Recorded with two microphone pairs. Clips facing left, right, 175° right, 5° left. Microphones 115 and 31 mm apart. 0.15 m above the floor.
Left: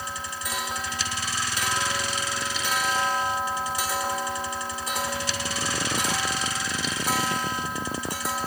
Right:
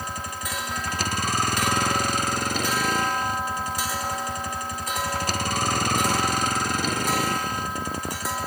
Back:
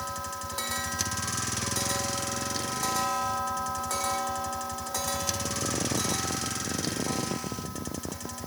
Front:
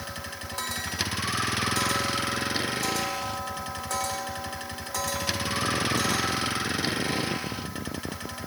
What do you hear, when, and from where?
0.0 s a vehicle: 55° right